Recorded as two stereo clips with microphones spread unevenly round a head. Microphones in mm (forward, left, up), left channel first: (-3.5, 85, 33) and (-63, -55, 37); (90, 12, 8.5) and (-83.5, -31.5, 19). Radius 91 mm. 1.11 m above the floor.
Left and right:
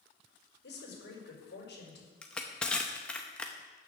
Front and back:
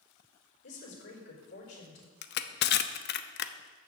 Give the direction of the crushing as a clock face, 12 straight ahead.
1 o'clock.